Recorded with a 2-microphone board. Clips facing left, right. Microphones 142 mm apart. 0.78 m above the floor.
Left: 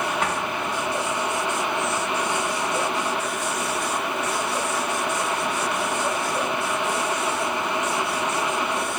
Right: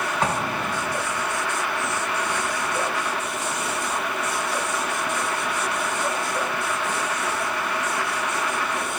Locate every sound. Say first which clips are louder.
0.2 s an explosion: right 1 dB; 35° right (ahead or behind)